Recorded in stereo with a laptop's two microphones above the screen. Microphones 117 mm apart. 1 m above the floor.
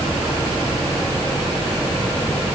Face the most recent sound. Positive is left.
No sound to turn to.